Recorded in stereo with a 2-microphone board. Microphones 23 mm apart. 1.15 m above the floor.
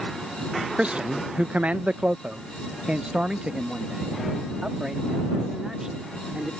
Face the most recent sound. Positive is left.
turn(degrees=-25)  # may be behind; listen again after turning